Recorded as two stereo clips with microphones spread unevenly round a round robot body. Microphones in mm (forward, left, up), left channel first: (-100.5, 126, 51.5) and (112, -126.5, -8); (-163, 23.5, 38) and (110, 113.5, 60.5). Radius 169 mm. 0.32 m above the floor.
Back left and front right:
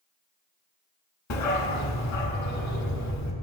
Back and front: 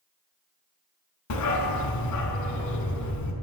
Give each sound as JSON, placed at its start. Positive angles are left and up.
{"t": 1.3, "sound": "a dog barking", "azimuth_deg": 175, "distance_m": 0.9}